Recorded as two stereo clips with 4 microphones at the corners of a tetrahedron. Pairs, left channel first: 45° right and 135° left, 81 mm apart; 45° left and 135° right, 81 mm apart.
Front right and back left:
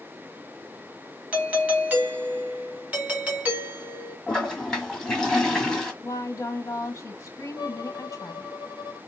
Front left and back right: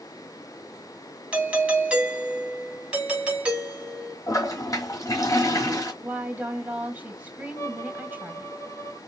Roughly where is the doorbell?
Behind.